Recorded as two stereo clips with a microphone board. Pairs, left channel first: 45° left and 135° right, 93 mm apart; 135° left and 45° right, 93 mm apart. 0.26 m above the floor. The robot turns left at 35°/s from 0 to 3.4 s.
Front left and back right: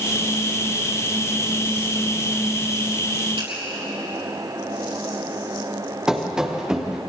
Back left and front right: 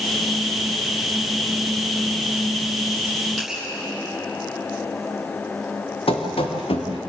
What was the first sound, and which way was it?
A finger snap, 135° right.